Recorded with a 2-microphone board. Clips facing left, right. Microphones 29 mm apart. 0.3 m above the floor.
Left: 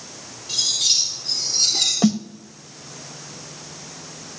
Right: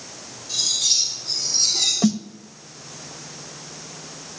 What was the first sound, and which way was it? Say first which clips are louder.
Cutlery clinking: left 1 dB; 75° left (ahead or behind).